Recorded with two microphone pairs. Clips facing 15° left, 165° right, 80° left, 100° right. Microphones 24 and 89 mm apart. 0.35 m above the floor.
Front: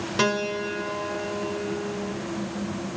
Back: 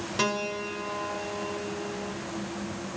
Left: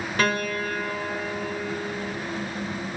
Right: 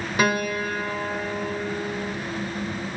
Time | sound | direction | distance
0.2 | a piano | 30° right | 0.7 m